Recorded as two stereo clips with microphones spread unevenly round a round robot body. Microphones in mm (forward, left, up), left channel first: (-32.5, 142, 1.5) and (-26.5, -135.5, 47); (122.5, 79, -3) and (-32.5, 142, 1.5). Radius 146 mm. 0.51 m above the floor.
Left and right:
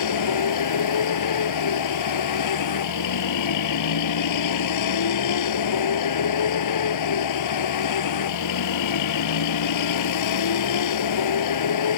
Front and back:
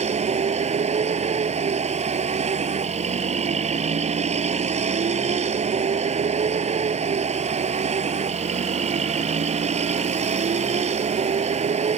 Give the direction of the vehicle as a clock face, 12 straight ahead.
8 o'clock.